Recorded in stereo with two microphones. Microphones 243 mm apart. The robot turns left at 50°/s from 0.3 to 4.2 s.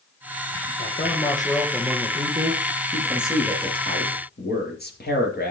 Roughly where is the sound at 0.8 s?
Ahead left.